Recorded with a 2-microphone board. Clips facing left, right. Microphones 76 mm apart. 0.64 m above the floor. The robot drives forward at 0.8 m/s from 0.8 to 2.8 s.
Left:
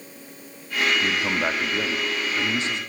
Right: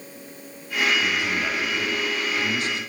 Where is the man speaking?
35° left (ahead or behind), 0.9 m; by 2.8 s 25° left (ahead or behind), 1.4 m.